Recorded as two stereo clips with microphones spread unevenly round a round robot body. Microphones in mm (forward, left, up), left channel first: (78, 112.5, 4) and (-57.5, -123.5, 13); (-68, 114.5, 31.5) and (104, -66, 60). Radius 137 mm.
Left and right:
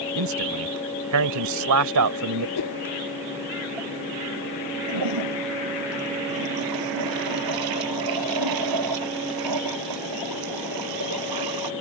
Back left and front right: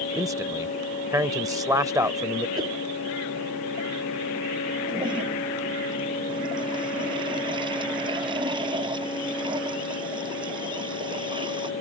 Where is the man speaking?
125° right.